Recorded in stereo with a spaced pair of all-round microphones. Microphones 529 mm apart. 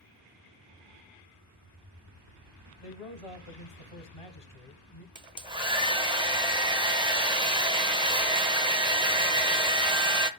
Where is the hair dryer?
10° right (ahead or behind), 0.7 m.